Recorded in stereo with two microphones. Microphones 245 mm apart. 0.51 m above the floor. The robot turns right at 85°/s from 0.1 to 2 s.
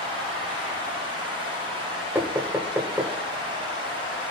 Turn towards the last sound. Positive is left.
turn(degrees=-10)  # may be behind; listen again after turning